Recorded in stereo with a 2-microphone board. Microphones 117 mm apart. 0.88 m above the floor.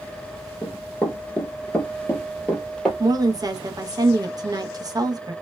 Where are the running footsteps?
20° left (ahead or behind), 0.9 m; by 2.9 s 5° left (ahead or behind), 1.2 m.